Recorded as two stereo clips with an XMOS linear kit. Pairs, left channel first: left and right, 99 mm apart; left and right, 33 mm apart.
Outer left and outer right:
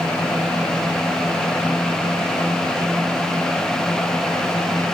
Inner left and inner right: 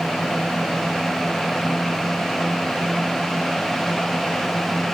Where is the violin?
No violin in this recording.